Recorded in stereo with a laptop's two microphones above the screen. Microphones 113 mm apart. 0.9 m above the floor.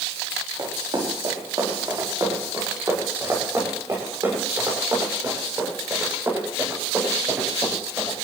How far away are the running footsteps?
About 6 m.